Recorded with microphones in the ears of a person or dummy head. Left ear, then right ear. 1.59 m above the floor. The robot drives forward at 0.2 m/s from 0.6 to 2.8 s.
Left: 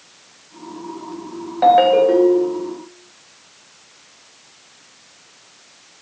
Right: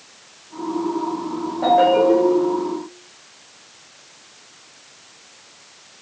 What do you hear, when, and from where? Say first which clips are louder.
1.6 s a ringtone: left 3 dB; 50° left (ahead or behind), 0.6 m; by 2.7 s 45° left (ahead or behind), 0.7 m